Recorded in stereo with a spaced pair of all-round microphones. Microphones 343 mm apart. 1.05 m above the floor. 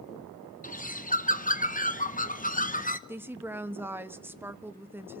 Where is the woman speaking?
5° right (ahead or behind), 1.0 m.